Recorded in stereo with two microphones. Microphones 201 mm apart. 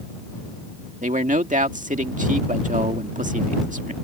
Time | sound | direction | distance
1.0 | a man speaking | 40° right (ahead or behind) | ?